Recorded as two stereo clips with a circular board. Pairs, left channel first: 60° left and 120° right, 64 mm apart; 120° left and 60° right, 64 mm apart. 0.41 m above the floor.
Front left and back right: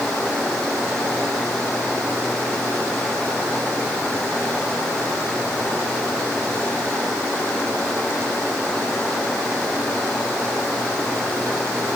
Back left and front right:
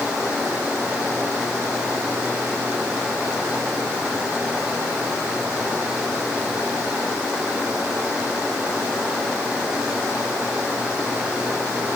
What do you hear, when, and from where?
Only background noise.